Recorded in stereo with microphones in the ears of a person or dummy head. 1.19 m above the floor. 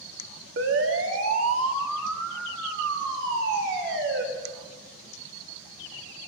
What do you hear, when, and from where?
0.6 s a siren: 60° right (ahead or behind), 3 m; by 4.2 s 70° right (ahead or behind), 6 m